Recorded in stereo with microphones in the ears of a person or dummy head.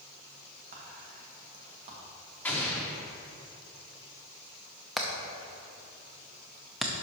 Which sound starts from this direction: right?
Whispering, at 0.7 s.